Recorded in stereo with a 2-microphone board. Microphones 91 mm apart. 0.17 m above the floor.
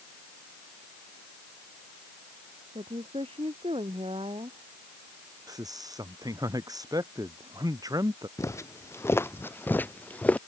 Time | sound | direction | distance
2.8 | a woman speaking | 80° right | ?
5.5 | a man speaking | 40° right (ahead or behind) | ?
8.4 | footsteps | 30° left (ahead or behind) | ?